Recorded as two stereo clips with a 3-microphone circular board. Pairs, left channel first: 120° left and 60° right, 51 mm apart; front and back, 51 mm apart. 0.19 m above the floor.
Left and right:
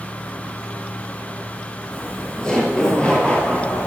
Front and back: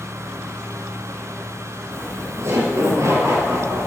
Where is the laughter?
155° right, 3.5 m; by 3.9 s 175° right, 4.5 m.